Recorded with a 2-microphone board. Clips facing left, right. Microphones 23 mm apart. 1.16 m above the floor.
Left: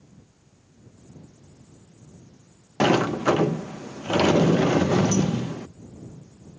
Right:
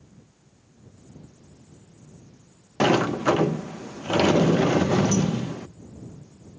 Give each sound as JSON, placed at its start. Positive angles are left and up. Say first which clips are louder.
{"t": 2.8, "sound": "a sliding door", "louder": "even", "side_deg": 0}